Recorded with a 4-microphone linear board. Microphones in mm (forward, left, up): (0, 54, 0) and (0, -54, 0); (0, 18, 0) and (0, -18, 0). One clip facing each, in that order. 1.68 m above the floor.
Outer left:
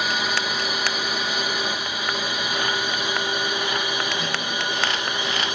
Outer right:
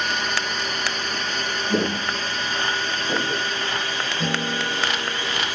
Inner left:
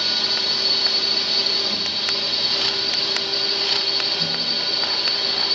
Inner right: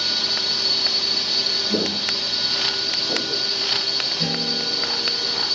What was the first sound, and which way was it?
A drone, 5° left (ahead or behind).